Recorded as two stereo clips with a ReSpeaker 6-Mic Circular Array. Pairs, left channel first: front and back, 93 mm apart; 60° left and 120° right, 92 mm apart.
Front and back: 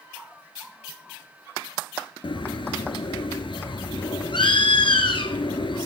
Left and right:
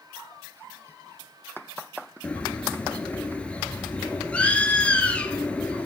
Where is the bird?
15° right, 0.8 m.